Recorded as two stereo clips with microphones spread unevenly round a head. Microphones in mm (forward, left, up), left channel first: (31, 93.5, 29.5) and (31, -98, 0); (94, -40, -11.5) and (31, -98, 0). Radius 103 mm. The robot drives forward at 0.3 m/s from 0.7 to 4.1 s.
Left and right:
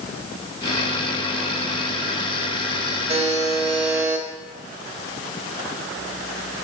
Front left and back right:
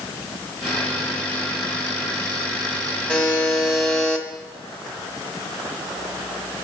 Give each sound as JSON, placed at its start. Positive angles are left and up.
{"t": 3.1, "sound": "a buzzer", "azimuth_deg": -40, "distance_m": 1.5}